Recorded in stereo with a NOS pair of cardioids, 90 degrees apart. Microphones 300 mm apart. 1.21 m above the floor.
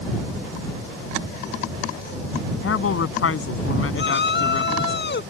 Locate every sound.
2.6 s a woman speaking: 45° left
3.9 s a shout: 35° left